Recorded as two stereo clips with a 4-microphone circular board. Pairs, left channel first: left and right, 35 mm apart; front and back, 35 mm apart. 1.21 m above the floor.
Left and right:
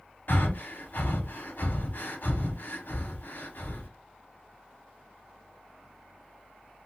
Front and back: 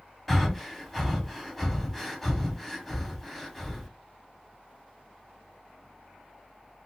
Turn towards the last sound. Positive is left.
turn(degrees=85)